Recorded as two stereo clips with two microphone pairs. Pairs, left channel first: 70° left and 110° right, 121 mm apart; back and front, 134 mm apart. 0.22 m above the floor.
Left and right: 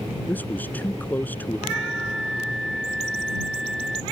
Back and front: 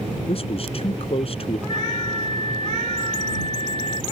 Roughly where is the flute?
Ahead.